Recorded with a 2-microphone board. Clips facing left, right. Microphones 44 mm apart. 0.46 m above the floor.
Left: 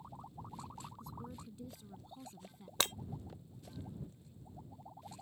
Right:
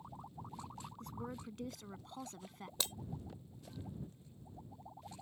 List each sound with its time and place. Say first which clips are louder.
1.0 s a woman speaking: right 3 dB; 60° right (ahead or behind); by 2.7 s 75° right (ahead or behind)
2.8 s breaking glass: left 7 dB; 60° left (ahead or behind)